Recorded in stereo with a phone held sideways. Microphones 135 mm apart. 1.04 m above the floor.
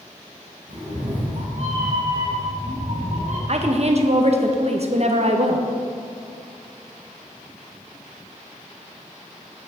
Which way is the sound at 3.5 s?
50° right (ahead or behind).